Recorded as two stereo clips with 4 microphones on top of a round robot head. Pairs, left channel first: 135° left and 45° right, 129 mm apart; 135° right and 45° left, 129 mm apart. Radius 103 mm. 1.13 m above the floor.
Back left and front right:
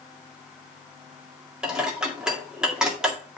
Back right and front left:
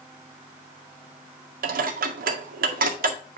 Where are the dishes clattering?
40° left, 1.9 m.